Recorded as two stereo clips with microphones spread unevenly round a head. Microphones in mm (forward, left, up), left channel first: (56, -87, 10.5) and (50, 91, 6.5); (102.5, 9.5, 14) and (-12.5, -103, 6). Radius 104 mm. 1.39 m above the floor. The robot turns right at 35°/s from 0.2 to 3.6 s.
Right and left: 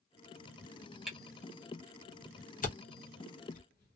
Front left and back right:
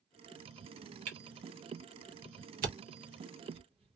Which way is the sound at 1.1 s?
Straight behind.